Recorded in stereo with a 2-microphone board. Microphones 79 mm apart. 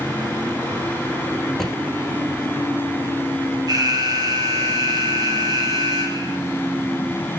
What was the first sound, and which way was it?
A drawer, 5° left (ahead or behind).